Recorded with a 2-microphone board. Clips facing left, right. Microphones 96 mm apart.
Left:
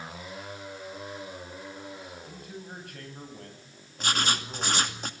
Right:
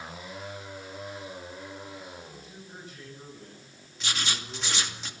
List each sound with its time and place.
2.2 s a man speaking: 60° left (ahead or behind), 10 m; by 5.0 s 65° left (ahead or behind), 8.5 m
4.0 s writing: 45° left (ahead or behind), 2.5 m